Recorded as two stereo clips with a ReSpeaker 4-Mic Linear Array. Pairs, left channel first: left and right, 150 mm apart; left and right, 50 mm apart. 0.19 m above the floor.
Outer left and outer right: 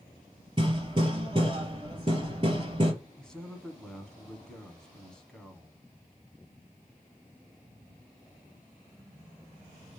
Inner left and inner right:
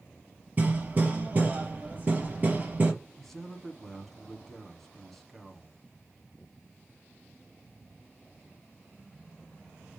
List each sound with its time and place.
0.6 s hammering: 30° right (ahead or behind), 3 m
3.2 s a man speaking: 5° left (ahead or behind), 1.4 m